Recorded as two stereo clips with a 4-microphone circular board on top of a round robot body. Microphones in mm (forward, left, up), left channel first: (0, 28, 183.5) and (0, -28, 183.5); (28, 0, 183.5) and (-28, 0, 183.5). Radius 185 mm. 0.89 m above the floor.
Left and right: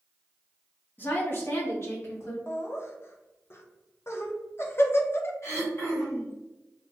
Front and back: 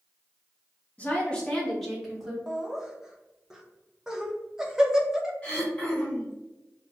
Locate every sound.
1.0 s a woman speaking: 50° left, 1.1 m; by 2.4 s 100° left, 1.3 m
2.5 s laughter: 105° left, 0.7 m
5.4 s throat clearing: 65° left, 1.4 m